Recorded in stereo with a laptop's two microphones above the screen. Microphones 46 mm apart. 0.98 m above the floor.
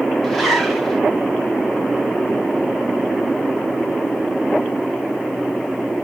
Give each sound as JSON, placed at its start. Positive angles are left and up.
{"t": 0.2, "sound": "a zipper", "side_deg": 0, "distance_m": 1.3}